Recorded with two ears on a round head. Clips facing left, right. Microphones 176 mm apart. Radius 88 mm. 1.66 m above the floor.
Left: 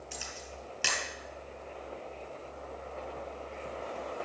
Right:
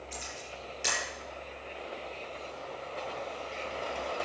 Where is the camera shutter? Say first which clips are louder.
Right 1 dB; 70° left (ahead or behind), 6 m.